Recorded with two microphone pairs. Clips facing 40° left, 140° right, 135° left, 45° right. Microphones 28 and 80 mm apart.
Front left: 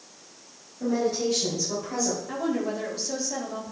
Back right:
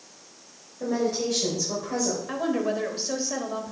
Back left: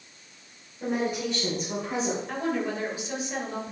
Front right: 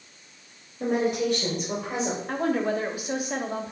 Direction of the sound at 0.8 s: 65° right.